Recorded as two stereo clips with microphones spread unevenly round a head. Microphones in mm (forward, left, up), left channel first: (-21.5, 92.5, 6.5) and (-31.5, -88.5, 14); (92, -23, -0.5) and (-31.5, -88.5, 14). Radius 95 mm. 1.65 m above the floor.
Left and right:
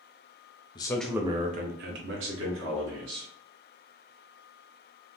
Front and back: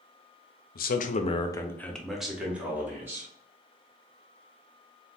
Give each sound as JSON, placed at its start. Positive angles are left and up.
{"t": 0.8, "sound": "a man speaking", "azimuth_deg": 20, "distance_m": 0.5}